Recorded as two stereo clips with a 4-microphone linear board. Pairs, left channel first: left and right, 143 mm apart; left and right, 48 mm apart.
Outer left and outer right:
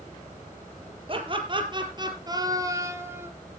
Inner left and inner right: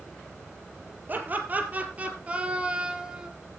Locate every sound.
1.1 s laughter: 40° right (ahead or behind), 4 m; by 3.3 s 15° right (ahead or behind), 2.5 m